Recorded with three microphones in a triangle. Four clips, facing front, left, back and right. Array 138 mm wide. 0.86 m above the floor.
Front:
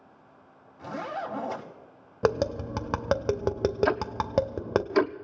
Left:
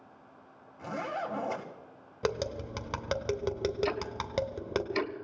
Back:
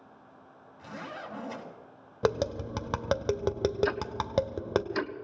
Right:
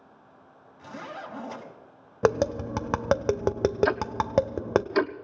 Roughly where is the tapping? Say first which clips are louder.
Right 9 dB, front 3 dB; right.